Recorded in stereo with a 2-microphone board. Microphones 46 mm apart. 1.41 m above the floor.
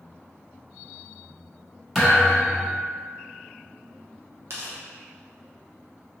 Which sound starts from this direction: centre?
A thud, at 1.9 s.